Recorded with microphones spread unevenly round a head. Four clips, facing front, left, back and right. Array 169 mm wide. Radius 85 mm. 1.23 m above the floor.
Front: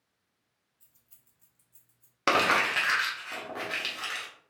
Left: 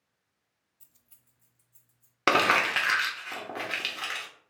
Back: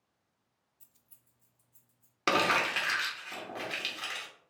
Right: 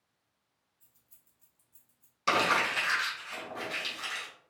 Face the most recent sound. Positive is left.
turn(degrees=75)